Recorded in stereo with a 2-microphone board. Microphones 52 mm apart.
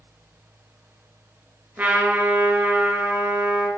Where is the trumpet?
35° right (ahead or behind), 4 m.